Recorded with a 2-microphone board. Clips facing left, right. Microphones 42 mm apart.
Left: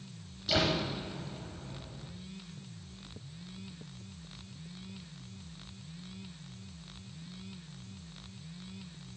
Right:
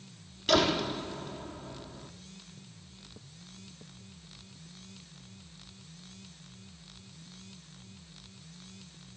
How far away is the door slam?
About 5 m.